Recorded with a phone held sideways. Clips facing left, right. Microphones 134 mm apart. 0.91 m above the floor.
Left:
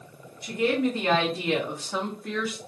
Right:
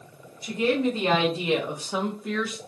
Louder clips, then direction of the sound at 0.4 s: Right 1 dB; 25° right (ahead or behind).